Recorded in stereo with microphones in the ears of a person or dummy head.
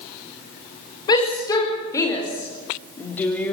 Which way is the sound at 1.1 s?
25° left (ahead or behind).